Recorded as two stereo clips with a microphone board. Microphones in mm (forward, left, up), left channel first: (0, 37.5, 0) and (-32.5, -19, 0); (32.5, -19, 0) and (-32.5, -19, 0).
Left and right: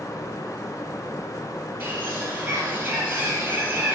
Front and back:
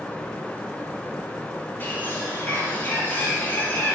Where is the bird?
60° right, 4 m.